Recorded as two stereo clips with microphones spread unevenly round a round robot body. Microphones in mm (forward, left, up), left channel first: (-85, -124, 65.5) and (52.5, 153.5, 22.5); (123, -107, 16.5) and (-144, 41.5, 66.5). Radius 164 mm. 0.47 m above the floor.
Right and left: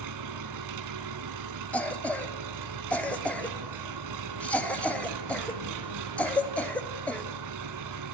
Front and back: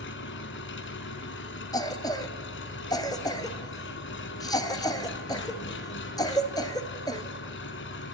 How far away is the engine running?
About 1.2 m.